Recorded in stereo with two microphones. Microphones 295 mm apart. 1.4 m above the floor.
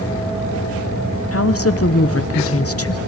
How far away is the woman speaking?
About 0.9 m.